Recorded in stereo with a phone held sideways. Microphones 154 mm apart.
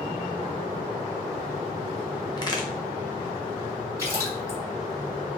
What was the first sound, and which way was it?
A crack, 30° left (ahead or behind).